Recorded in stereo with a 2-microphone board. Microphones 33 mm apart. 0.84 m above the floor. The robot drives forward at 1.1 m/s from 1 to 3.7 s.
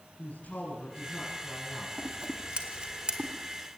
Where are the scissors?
40° right (ahead or behind), 2 m; by 3.3 s 25° right (ahead or behind), 3 m.